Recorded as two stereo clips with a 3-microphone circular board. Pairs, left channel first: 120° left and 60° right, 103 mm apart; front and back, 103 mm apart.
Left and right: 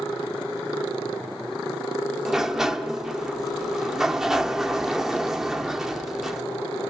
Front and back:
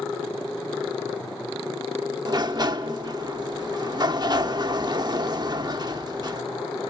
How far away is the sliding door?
About 0.8 m.